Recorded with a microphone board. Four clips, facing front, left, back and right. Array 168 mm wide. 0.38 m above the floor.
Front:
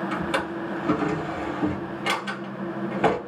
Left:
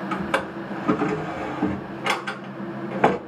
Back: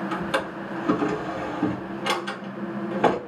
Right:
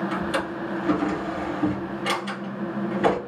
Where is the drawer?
100° left, 1.1 m.